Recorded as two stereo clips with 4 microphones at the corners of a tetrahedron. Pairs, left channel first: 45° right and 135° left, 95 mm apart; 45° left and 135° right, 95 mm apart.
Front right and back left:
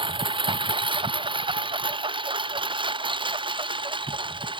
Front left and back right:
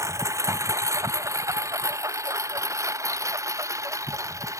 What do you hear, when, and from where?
0.0 s a lawn mower: 165° left